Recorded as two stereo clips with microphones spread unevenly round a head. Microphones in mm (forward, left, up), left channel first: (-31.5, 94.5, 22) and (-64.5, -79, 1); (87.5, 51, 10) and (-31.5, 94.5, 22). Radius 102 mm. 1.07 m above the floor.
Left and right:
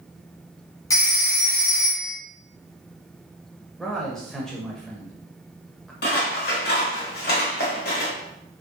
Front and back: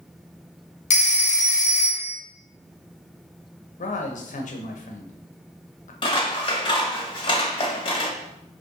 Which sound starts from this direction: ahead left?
Scissors, at 6.0 s.